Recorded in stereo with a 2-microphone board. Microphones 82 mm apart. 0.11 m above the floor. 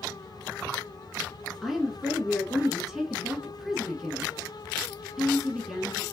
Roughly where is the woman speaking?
Centre.